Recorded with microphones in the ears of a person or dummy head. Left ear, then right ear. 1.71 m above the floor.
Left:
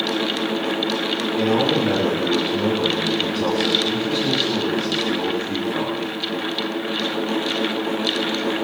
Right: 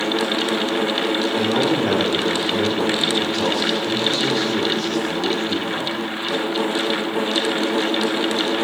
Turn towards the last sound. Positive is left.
turn(degrees=-70)  # may be behind; listen again after turning